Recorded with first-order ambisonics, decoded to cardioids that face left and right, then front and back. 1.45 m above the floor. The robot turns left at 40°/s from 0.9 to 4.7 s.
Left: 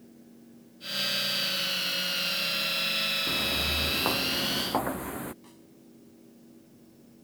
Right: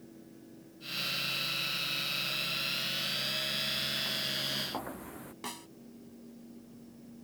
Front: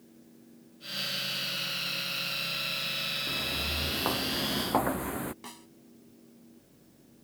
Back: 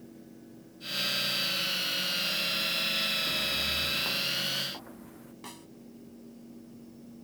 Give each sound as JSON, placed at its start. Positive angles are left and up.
{"t": 3.3, "sound": "footsteps", "azimuth_deg": 85}
{"t": 5.4, "sound": "a snare drum", "azimuth_deg": -90}